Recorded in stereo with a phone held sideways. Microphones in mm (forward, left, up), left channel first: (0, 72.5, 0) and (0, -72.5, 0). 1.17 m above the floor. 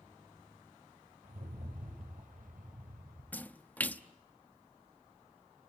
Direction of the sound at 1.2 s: 70° right (ahead or behind).